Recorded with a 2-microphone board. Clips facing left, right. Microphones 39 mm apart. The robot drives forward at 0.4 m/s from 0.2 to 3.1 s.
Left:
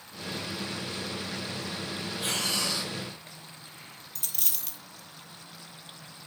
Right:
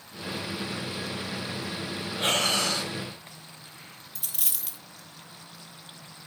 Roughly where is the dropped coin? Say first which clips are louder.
Even; centre.